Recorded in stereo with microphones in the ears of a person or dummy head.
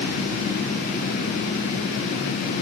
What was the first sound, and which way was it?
Only background noise.